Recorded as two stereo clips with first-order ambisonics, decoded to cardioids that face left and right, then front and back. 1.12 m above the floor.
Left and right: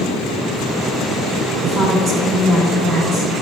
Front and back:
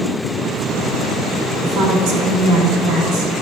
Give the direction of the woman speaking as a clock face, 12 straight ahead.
5 o'clock.